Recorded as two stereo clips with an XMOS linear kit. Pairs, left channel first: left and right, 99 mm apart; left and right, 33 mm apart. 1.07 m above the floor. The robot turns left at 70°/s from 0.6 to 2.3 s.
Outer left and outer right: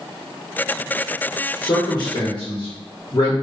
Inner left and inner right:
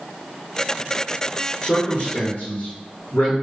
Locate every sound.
1.6 s a man speaking: 30° left (ahead or behind), 0.9 m; by 3.3 s 55° left (ahead or behind), 0.9 m